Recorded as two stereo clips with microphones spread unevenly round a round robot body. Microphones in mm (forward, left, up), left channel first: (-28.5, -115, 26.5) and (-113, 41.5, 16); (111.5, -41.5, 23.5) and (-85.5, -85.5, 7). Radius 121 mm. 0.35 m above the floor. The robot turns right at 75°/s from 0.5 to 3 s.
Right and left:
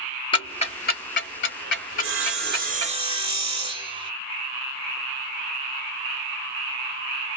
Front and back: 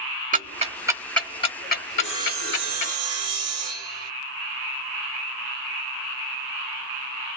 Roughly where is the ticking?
Behind right.